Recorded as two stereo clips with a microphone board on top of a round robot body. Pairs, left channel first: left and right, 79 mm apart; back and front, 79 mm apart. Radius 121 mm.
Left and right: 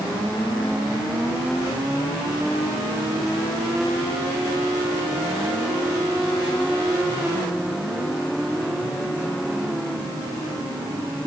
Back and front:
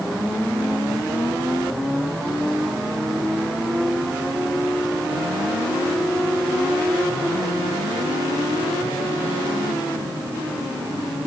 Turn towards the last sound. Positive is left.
No sound to turn to.